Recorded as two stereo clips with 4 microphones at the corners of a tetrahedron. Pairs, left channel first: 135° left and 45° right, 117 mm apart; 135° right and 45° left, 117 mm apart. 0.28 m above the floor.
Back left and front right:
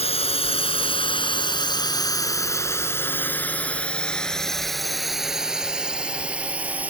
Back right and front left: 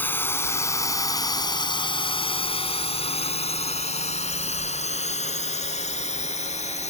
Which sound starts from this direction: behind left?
A drone, at 0.0 s.